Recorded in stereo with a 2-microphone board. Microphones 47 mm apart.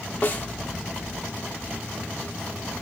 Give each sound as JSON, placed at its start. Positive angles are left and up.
{"t": 0.2, "sound": "a snare drum", "side_deg": 35, "distance_m": 1.0}